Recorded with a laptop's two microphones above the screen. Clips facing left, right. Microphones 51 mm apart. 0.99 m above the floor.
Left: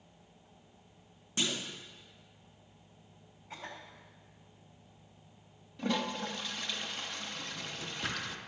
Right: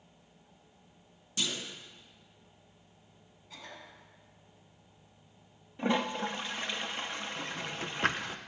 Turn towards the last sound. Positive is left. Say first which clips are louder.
# right 4 dB
turn(degrees=-45)  # may be behind; listen again after turning